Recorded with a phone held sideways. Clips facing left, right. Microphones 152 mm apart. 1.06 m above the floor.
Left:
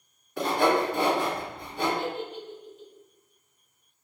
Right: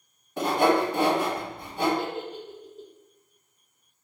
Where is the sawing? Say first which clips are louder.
Right 2 dB; 25° right (ahead or behind), 1.2 m.